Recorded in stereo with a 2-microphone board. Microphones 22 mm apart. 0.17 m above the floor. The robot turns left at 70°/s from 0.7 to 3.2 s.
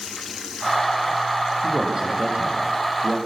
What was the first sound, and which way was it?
A man speaking, 15° right.